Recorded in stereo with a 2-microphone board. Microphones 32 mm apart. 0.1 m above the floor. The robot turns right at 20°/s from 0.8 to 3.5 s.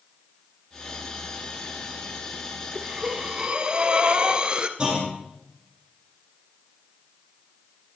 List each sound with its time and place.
2.8 s breathing: 15° right (ahead or behind), 0.9 m; by 4.7 s 25° right (ahead or behind), 0.9 m
4.8 s a clunk: 25° right (ahead or behind), 4 m